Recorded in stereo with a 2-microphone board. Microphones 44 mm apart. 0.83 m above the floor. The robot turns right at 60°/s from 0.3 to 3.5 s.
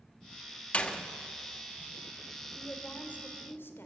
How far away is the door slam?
About 1.1 m.